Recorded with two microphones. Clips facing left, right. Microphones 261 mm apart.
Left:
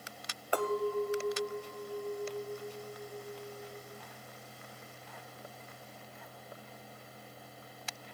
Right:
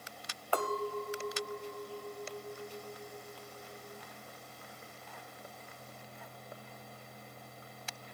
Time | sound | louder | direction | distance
0.5 | a clink | left 4 dB | 20° left (ahead or behind) | 1.2 m